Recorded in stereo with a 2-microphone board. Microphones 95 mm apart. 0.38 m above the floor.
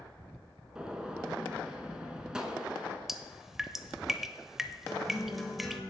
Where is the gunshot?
10° right (ahead or behind), 1.1 m.